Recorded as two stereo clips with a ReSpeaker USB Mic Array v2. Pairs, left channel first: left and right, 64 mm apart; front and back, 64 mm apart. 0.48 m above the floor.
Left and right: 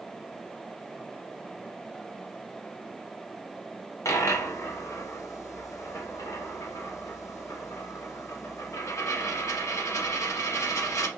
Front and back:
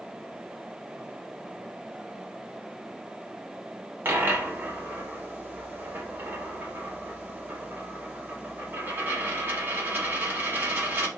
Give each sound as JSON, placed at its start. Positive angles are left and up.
{"t": 4.0, "sound": "a dropped coin", "azimuth_deg": 125, "distance_m": 0.9}